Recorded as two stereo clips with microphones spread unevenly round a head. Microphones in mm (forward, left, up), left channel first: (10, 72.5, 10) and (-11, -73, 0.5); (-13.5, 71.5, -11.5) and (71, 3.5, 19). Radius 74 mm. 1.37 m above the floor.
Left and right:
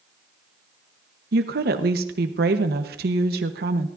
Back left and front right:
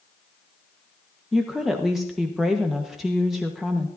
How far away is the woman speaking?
About 1.2 m.